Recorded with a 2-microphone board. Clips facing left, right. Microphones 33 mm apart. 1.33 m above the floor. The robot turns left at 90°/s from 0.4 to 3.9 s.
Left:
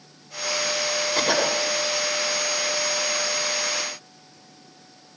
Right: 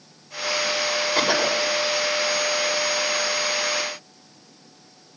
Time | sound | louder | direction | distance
1.1 | a cough | right 1 dB | 165° right | 5.5 m